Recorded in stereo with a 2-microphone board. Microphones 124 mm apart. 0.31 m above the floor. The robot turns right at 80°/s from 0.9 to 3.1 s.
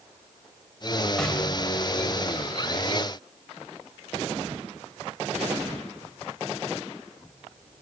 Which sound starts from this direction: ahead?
An explosion, at 1.2 s.